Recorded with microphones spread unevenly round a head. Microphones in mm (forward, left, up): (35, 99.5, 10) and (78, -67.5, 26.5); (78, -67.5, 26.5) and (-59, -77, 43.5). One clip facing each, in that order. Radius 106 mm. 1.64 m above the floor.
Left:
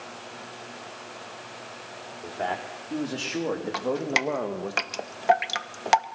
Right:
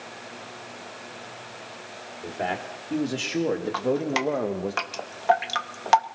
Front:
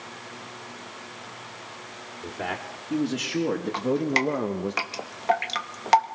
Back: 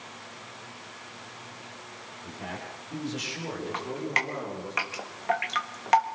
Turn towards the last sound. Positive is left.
turn(degrees=45)